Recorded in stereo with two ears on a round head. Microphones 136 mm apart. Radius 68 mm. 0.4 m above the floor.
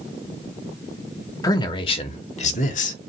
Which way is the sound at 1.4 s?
25° left (ahead or behind).